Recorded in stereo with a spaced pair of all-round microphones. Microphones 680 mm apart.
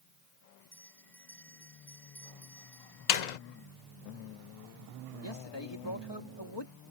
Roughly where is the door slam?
Left.